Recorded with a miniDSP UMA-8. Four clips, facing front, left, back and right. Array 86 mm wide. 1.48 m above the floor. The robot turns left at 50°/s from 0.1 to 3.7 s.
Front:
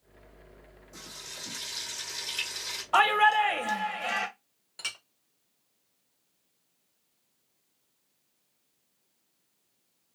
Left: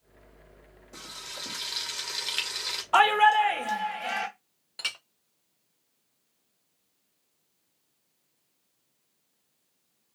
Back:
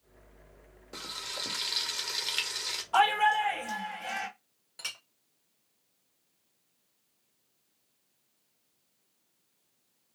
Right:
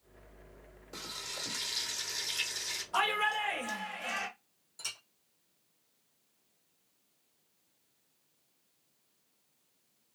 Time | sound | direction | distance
0.9 | frying | 165° right | 1.6 m
2.9 | a shout | 60° left | 1.7 m
4.8 | a clink | 80° left | 0.7 m